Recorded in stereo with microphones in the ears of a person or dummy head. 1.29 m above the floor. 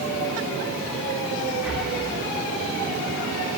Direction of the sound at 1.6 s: 5° right (ahead or behind).